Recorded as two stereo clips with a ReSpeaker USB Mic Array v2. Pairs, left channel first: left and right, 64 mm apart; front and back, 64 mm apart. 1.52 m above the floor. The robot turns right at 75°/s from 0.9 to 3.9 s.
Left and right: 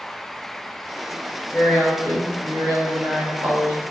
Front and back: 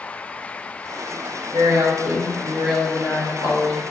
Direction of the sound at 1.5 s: 175° right.